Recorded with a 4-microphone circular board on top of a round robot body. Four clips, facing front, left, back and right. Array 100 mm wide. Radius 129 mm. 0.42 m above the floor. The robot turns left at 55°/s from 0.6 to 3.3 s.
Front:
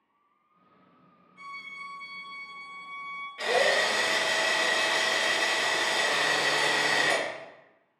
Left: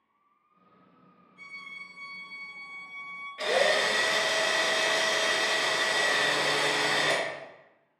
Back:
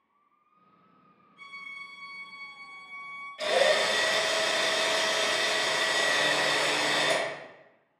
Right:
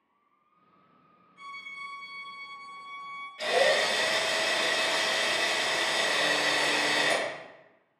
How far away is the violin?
About 1.5 m.